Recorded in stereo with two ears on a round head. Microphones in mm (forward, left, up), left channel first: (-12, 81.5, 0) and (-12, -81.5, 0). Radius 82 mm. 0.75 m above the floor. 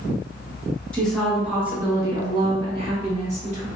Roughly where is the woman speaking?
Centre.